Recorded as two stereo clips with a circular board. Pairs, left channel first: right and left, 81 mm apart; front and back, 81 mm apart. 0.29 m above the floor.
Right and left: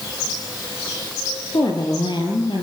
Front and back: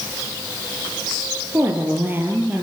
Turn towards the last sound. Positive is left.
turn(degrees=-110)